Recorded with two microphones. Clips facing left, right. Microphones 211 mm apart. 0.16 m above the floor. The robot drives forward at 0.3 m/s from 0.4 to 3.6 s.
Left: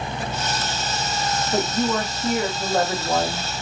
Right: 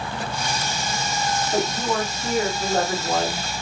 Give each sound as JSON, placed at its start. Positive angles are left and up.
{"t": 1.5, "sound": "a woman speaking", "side_deg": 0, "distance_m": 1.4}